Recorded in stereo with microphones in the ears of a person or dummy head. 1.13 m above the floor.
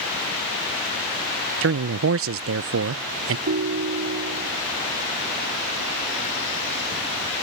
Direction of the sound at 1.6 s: 60° right (ahead or behind).